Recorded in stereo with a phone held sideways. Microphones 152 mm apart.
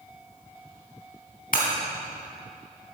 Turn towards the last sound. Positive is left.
turn(degrees=70)  # may be behind; listen again after turning